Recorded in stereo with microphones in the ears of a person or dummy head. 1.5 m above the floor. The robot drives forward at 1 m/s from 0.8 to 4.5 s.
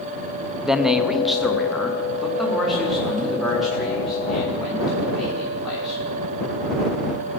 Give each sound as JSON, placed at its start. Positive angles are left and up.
{"t": 0.6, "sound": "a man speaking", "side_deg": 0, "distance_m": 0.5}